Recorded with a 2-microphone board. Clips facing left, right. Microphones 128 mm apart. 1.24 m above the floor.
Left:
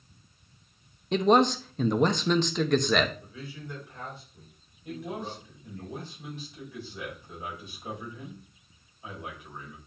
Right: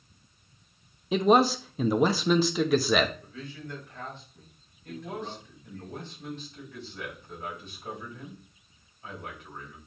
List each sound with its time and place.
1.1 s a man speaking: 5° right (ahead or behind), 0.6 m
3.2 s a man speaking: 10° left (ahead or behind), 4 m
4.8 s a man speaking: 10° left (ahead or behind), 4.5 m